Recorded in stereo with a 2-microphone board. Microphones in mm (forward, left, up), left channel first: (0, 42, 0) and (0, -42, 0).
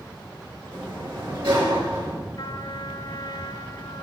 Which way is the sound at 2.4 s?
65° left (ahead or behind).